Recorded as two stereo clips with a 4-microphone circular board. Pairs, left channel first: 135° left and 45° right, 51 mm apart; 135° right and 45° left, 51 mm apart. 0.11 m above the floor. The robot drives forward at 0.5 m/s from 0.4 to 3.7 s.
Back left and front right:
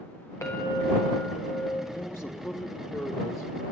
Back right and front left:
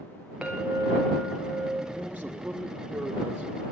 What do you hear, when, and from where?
0.4 s a clink: 120° left, 7 m; by 1.8 s 125° left, 7.5 m
1.9 s a man speaking: 105° left, 4 m; by 3.6 s 115° left, 4 m